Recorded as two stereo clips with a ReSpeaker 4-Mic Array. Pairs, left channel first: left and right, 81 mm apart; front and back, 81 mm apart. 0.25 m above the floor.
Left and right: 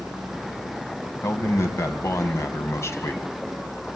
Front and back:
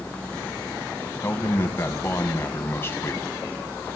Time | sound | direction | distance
1.2 | a man speaking | 50° left | 1.8 m